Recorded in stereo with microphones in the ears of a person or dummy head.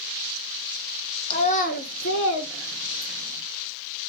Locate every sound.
1.3 s a child speaking: 35° left (ahead or behind), 0.8 m; by 3.4 s 45° left (ahead or behind), 1.6 m